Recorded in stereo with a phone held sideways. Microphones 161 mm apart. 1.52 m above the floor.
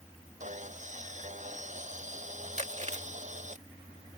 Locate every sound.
0.4 s sawing: 50° right (ahead or behind)
2.6 s chewing: 45° right (ahead or behind)